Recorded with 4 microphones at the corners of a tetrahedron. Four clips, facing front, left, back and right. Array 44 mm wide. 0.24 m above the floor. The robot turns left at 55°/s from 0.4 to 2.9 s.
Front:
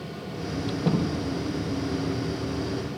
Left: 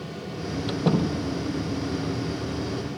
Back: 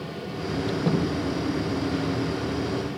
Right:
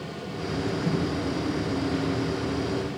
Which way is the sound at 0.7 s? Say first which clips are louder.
Left 5 dB, even; 100° left.